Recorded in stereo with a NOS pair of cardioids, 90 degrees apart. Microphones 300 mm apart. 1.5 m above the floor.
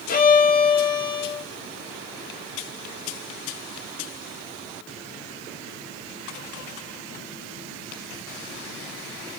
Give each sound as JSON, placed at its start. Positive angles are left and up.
{"t": 0.1, "sound": "a violin", "azimuth_deg": 30, "distance_m": 0.8}